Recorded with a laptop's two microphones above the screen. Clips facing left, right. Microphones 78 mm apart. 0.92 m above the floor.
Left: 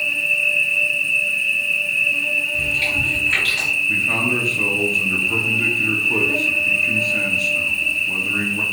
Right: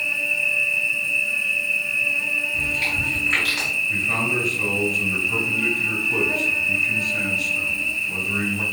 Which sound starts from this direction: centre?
Chewing, at 2.5 s.